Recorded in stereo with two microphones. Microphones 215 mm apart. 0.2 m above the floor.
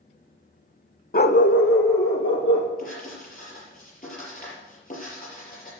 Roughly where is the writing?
Left.